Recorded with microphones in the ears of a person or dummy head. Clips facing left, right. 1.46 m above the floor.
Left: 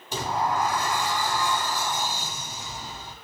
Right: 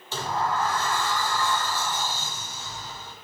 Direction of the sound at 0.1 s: 10° left (ahead or behind).